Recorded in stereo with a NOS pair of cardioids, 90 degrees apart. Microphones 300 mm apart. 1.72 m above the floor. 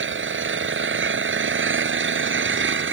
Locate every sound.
0.0 s an engine running: 40° right